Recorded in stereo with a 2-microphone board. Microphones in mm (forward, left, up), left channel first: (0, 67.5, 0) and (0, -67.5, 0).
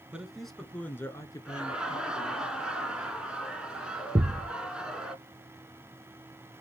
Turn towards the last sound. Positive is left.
turn(degrees=-30)  # may be behind; listen again after turning